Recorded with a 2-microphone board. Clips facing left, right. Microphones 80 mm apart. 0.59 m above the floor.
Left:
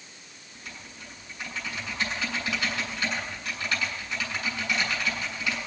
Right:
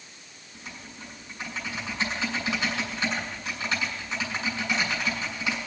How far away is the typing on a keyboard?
About 6.5 m.